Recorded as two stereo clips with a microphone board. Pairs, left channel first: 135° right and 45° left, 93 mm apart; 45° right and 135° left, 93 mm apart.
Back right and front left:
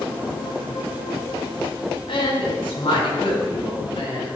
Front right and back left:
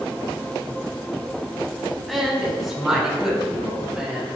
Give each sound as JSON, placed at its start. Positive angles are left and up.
{"t": 2.1, "sound": "a woman speaking", "azimuth_deg": -135, "distance_m": 3.5}